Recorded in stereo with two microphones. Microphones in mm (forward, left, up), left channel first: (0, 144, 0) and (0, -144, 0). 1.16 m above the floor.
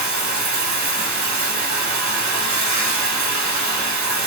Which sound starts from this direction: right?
Running water, at 0.0 s.